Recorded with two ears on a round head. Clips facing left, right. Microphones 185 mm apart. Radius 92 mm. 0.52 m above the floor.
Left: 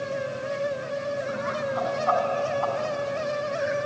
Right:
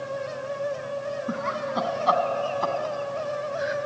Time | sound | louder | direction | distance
1.3 | laughter | left 1 dB | 55° right (ahead or behind) | 4.5 m